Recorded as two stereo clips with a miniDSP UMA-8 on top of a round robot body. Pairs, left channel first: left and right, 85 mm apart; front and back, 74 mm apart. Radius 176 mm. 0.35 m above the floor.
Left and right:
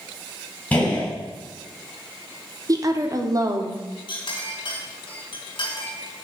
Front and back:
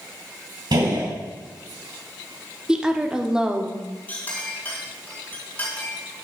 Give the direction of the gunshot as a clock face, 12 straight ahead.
7 o'clock.